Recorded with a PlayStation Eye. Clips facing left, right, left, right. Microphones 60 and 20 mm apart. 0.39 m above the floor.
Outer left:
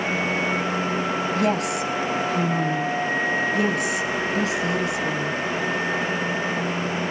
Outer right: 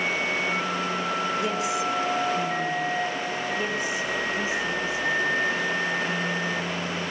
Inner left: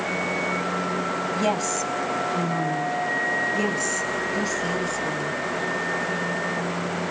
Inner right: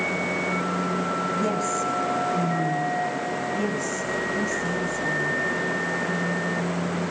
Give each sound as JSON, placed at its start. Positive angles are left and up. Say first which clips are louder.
{"t": 1.4, "sound": "a woman speaking", "louder": "outer left 3 dB, inner left 1 dB", "side_deg": 60, "distance_m": 2.0}